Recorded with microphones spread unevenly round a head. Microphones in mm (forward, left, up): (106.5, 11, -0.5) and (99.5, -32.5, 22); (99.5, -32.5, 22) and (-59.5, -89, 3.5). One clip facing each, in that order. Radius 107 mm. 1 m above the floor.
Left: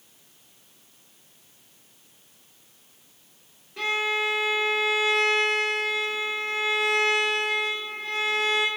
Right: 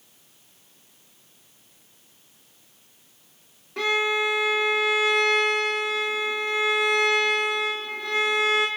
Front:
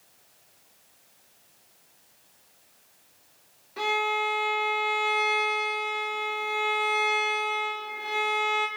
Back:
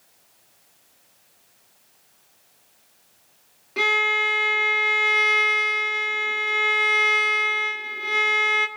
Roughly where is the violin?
Behind right.